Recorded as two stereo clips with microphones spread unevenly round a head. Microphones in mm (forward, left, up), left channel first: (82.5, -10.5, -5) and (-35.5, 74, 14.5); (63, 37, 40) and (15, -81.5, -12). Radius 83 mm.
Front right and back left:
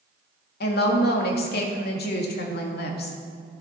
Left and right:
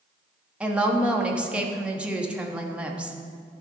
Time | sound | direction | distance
0.6 | a woman speaking | 35° right | 1.6 m